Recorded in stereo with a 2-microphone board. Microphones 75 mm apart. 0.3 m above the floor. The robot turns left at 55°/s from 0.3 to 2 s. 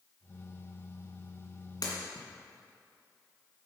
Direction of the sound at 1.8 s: 65° left (ahead or behind).